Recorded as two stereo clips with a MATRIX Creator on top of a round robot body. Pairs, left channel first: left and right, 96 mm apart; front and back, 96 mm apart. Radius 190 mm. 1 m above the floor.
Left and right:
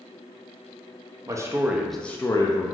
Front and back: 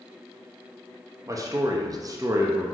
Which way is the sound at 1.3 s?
135° right.